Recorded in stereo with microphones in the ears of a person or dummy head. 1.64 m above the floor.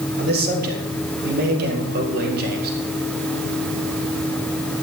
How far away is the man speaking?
About 3.5 m.